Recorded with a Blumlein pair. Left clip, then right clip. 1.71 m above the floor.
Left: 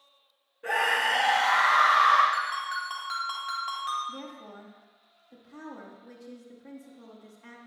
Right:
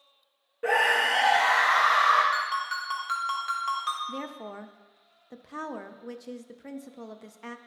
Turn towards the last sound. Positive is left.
turn(degrees=-35)